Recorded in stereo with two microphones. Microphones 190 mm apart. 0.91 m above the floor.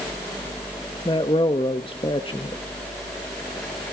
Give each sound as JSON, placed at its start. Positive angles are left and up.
{"t": 1.1, "sound": "a man speaking", "side_deg": 30, "distance_m": 1.3}